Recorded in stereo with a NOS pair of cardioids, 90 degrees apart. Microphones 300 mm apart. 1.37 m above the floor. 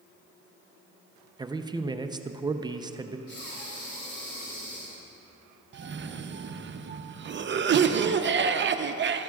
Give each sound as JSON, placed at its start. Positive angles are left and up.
{"t": 1.4, "sound": "a man speaking", "azimuth_deg": -15, "distance_m": 0.5}
{"t": 3.3, "sound": "breathing", "azimuth_deg": 45, "distance_m": 3.5}
{"t": 5.7, "sound": "a cough", "azimuth_deg": -40, "distance_m": 0.7}